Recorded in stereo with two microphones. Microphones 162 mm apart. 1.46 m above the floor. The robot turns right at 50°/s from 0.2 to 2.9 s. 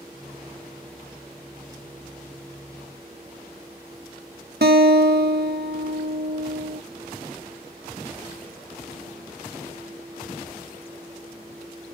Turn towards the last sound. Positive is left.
turn(degrees=-80)